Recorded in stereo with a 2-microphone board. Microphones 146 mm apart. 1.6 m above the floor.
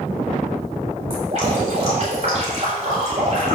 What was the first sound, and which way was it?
Dripping, 50° right (ahead or behind).